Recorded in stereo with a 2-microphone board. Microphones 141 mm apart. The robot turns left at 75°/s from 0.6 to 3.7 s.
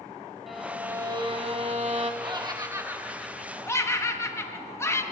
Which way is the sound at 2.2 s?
35° right (ahead or behind).